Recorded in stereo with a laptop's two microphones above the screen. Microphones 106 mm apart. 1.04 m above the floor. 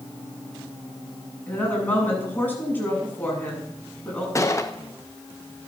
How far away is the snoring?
No snoring in this recording.